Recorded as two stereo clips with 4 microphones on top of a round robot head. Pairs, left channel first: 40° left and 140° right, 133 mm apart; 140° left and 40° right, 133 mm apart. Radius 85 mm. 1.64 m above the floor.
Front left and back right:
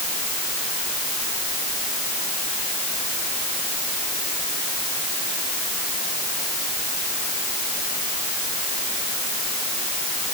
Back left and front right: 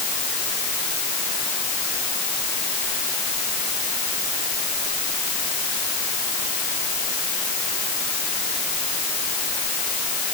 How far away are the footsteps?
No footsteps in this recording.